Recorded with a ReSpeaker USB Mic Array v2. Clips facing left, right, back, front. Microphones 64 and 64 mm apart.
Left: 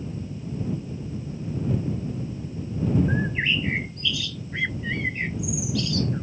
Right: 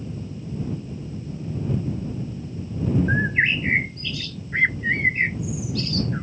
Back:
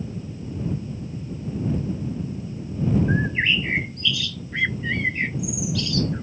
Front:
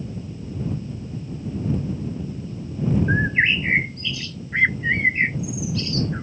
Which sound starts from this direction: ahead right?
A bird, at 3.1 s.